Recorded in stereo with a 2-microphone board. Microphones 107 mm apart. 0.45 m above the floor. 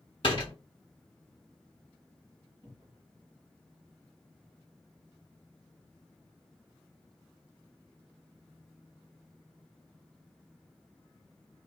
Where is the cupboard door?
20° left (ahead or behind), 1.6 m.